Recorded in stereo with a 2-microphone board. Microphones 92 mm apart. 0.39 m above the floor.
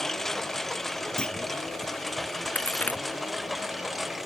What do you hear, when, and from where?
0.0 s a lawn mower: 5° left (ahead or behind); by 4.2 s centre (ahead or behind)
1.2 s a clunk: 10° left (ahead or behind)
2.5 s a crack: 15° left (ahead or behind)